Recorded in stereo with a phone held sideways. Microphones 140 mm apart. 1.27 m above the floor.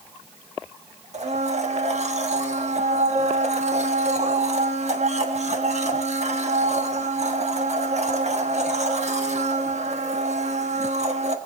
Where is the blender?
55° right (ahead or behind), 1.3 m.